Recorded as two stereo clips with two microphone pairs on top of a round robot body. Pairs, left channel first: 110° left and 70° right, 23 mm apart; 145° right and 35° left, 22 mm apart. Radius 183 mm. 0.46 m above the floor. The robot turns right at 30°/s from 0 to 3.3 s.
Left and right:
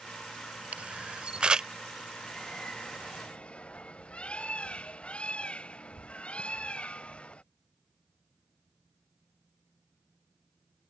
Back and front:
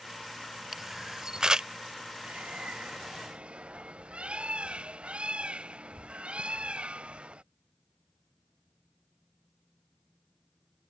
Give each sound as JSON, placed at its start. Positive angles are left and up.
{"t": 0.7, "sound": "a camera shutter", "azimuth_deg": -45}
{"t": 2.2, "sound": "a bird", "azimuth_deg": 35}